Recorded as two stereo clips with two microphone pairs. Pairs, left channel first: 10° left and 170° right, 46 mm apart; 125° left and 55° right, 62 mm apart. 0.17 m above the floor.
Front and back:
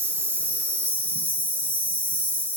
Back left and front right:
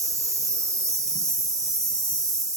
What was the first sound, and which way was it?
An insect, 45° right.